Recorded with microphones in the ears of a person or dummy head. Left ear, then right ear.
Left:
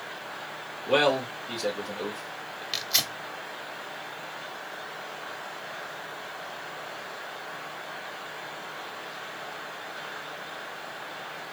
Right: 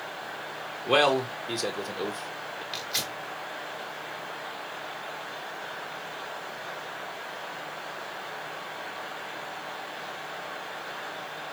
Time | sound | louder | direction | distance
0.9 | a man speaking | right 1 dB | 85° right | 1.6 m
2.7 | tearing paper | left 5 dB | 15° left (ahead or behind) | 0.9 m